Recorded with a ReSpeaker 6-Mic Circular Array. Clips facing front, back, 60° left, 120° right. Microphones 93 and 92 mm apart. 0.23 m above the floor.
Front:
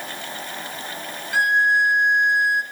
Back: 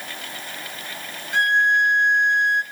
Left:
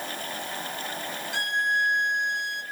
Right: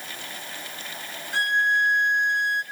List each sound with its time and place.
1.3 s a violin: 80° right, 0.7 m